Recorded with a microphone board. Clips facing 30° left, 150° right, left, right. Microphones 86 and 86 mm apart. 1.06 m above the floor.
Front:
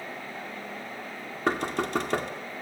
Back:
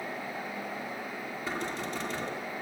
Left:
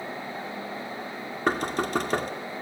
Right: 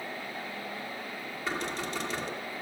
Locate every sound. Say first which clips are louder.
1.5 s knocking: front 9 dB, left 8 dB; 55° left, 2 m